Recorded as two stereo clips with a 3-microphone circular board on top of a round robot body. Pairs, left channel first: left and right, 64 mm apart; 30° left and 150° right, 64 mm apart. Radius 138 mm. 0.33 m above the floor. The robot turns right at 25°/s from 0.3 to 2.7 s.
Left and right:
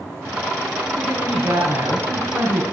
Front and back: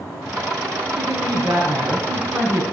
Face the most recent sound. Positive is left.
turn(degrees=-95)